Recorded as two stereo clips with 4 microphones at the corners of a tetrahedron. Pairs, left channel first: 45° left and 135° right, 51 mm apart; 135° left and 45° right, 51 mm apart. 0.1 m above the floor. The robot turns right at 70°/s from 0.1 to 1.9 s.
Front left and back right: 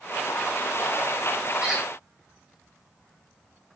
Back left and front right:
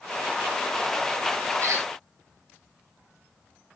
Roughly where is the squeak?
Right.